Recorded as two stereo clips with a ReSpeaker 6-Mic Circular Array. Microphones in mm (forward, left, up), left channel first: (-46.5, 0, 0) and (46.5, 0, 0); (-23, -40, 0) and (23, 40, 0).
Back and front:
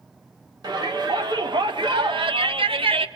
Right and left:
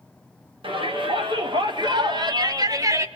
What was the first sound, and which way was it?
A shout, 40° left.